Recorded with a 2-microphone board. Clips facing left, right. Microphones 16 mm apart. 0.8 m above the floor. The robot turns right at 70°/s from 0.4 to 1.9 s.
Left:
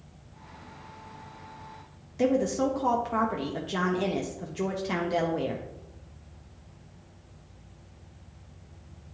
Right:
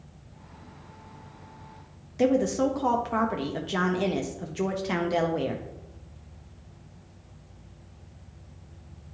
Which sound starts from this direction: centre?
A woman speaking, at 2.2 s.